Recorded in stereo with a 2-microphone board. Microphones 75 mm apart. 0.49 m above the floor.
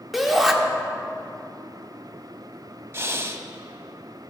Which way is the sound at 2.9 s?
35° right (ahead or behind).